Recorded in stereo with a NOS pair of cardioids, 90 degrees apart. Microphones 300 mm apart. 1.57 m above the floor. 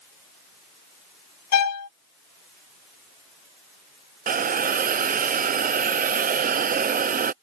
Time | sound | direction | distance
1.5 | a violin | 65° left | ?
4.3 | a hiss | 30° right | ?